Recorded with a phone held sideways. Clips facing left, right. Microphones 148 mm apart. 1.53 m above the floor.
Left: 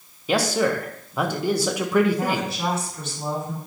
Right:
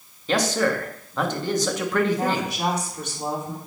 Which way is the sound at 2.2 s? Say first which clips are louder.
Right 1 dB; 15° right (ahead or behind).